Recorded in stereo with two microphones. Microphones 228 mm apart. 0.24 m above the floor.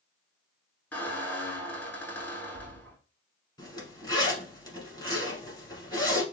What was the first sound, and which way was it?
A squeak, 10° left (ahead or behind).